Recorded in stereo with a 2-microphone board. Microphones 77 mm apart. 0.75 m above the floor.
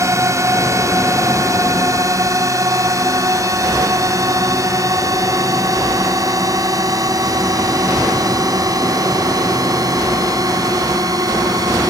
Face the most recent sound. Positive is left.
turn(degrees=-50)  # may be behind; listen again after turning